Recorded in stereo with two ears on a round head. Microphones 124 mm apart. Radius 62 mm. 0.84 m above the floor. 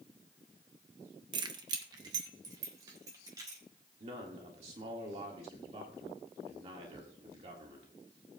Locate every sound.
1.3 s keys jangling: 30° right (ahead or behind), 0.9 m; by 3.6 s 25° right (ahead or behind), 3.5 m
4.0 s a man speaking: 45° right (ahead or behind), 1.7 m